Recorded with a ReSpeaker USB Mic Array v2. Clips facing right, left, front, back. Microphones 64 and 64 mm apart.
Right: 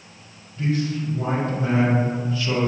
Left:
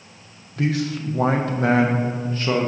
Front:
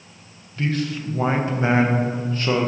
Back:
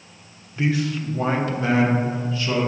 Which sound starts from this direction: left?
A man speaking, at 0.6 s.